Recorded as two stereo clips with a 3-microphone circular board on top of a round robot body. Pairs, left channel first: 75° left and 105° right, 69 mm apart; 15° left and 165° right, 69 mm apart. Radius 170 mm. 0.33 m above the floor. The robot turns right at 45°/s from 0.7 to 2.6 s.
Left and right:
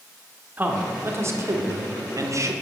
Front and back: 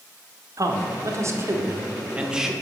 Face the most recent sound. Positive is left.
turn(degrees=-75)